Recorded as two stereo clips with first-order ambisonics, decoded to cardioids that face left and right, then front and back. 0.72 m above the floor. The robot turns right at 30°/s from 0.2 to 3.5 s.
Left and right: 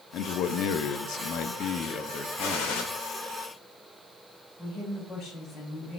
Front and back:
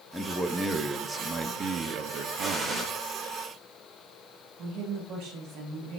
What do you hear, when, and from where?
0.1 s a man speaking: 85° left, 0.7 m; by 3.0 s 170° left, 0.7 m
2.4 s a gunshot: 100° left, 1.9 m; by 2.8 s 115° left, 1.9 m
4.6 s a woman speaking: 150° left, 3 m